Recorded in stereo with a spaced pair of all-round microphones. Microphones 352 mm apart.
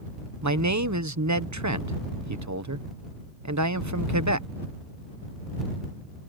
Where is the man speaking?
50° right (ahead or behind).